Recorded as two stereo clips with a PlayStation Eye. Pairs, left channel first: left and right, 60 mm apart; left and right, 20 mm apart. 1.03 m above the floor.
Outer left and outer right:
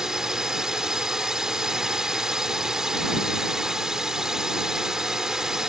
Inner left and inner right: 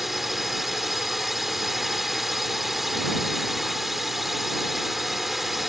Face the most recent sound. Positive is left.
turn(degrees=-10)  # may be behind; listen again after turning